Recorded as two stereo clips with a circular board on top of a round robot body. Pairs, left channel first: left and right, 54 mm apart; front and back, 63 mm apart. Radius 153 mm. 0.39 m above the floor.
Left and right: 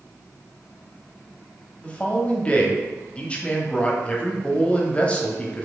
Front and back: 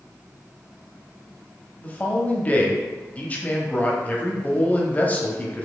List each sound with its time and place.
1.8 s a man speaking: 40° left, 1.0 m